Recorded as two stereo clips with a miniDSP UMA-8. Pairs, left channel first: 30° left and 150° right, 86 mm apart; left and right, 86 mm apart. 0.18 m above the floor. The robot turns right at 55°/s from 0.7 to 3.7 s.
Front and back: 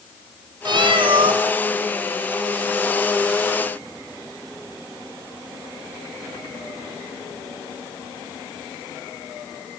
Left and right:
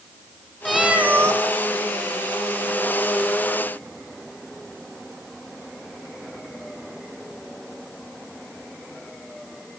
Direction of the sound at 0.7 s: Straight behind.